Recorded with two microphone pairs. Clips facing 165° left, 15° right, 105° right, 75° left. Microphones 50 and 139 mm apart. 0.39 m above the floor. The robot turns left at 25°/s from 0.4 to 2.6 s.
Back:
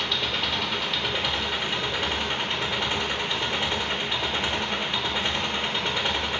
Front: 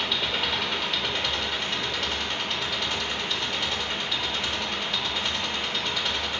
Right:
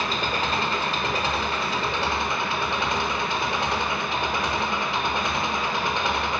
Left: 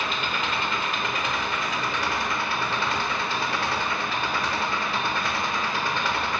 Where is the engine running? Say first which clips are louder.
Even, right 2 dB; 100° right, 1.0 m; by 6.4 s 155° right, 1.0 m.